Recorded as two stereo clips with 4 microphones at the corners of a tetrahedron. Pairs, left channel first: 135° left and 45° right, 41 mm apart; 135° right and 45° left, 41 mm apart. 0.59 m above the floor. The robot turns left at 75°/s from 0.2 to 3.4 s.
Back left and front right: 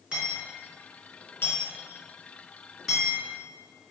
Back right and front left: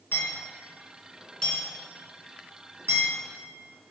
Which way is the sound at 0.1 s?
105° right.